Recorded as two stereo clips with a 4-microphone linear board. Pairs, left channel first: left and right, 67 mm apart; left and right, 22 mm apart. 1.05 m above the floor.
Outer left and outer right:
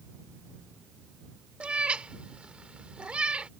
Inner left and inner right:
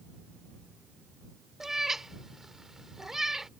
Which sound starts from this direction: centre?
A cat meowing, at 1.6 s.